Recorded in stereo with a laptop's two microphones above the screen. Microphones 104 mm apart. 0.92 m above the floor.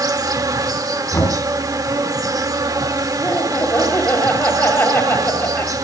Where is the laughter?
20° left (ahead or behind), 5 m.